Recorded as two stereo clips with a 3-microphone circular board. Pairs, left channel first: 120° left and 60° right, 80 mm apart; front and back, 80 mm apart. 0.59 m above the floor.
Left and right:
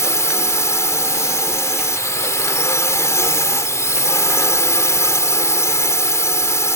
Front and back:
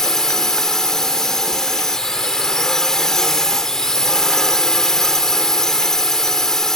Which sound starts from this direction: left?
A drone, at 0.0 s.